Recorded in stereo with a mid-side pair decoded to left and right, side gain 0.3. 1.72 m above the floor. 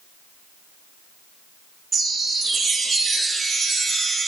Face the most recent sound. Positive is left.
turn(degrees=-60)